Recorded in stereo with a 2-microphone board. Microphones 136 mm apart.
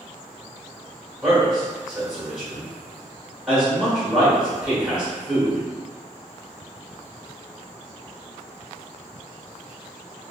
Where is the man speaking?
5° right (ahead or behind), 1.5 m.